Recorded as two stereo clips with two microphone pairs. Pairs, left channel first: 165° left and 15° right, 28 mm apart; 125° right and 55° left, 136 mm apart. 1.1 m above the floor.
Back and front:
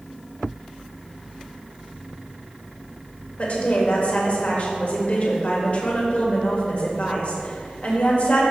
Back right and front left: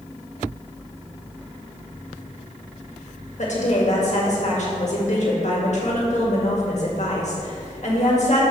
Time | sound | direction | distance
3.4 | a woman speaking | 155° right | 1.8 m